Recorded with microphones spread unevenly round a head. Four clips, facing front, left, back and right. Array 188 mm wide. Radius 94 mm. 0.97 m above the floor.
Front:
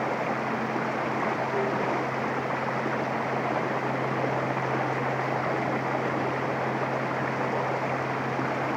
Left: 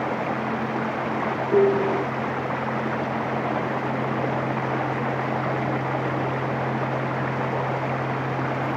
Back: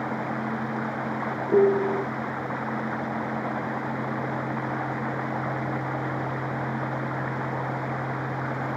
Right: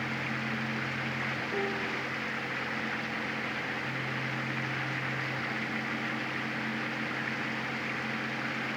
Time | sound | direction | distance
0.0 | running water | 50° left | ?
1.5 | a piano | 130° left | ?